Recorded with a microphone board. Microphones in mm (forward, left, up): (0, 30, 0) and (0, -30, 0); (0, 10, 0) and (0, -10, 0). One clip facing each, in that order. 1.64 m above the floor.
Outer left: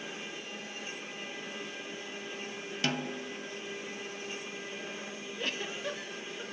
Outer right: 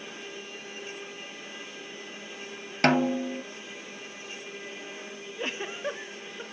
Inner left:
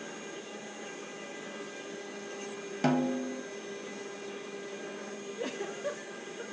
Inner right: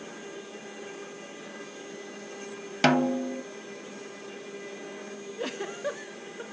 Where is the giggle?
25° right (ahead or behind), 1.5 m.